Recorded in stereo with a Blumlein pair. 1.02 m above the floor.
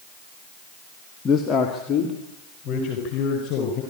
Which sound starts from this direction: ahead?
A man speaking, at 1.2 s.